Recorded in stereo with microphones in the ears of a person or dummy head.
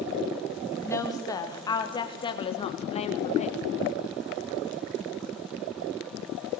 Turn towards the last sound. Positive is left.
turn(degrees=35)  # may be behind; listen again after turning